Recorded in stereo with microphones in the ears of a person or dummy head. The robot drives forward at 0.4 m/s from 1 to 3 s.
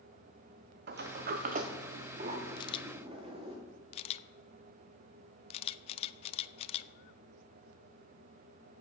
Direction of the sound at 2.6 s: 25° left (ahead or behind).